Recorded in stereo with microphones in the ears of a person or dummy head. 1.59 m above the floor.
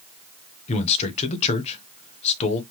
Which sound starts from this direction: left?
A man speaking, at 0.7 s.